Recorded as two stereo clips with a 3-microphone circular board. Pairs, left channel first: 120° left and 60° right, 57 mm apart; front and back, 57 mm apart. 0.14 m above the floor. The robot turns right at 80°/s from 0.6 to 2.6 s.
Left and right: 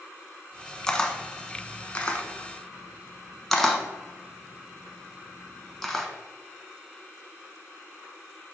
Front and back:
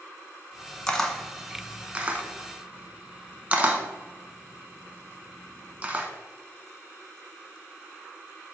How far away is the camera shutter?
About 0.9 m.